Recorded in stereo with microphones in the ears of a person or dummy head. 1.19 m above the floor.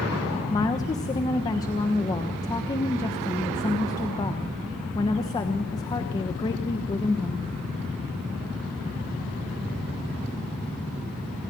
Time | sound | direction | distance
0.5 | a woman speaking | 20° left (ahead or behind) | 1.3 m